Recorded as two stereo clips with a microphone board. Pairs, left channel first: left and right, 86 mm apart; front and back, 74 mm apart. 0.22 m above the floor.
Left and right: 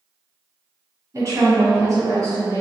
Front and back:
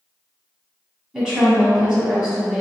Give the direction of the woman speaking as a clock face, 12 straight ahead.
3 o'clock.